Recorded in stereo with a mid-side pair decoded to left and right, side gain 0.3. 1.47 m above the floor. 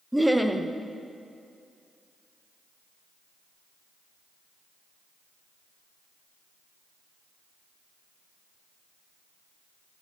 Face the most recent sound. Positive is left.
turn(degrees=-10)